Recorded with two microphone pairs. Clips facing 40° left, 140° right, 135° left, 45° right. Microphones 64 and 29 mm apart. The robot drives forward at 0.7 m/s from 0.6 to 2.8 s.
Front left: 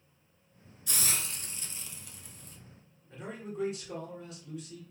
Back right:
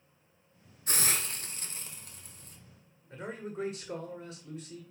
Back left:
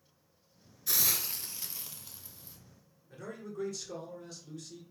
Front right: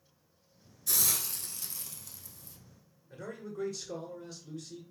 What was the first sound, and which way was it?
A hiss, 165° right.